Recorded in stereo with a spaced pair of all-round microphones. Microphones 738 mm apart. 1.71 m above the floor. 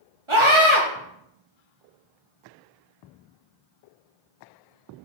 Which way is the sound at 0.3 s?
40° right (ahead or behind).